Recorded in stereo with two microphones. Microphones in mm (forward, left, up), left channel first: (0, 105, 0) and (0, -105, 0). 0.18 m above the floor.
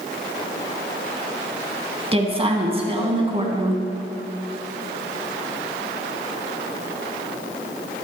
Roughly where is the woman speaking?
Right.